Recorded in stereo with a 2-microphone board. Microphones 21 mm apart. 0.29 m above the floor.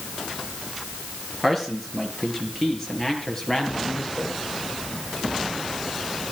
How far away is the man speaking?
About 6 m.